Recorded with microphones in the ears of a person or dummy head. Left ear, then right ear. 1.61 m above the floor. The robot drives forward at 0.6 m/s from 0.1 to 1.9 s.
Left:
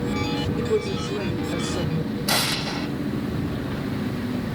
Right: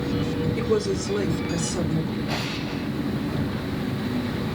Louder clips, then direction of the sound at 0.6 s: Right 1 dB; 70° right (ahead or behind).